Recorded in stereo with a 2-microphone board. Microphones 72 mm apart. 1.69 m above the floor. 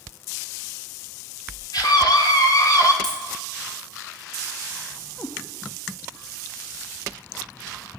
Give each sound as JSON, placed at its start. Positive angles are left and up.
{"t": 1.7, "sound": "a scream", "side_deg": 65, "distance_m": 2.5}
{"t": 3.0, "sound": "a dropped coin", "side_deg": 10, "distance_m": 5.0}
{"t": 5.2, "sound": "a cat meowing", "side_deg": 30, "distance_m": 1.2}